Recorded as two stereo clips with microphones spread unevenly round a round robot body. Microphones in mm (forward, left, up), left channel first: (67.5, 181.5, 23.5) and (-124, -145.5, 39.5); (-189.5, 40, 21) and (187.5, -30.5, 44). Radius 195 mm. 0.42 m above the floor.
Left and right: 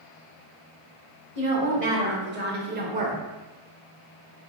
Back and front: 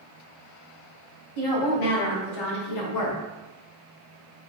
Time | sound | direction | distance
1.4 | a woman speaking | straight behind | 2.0 m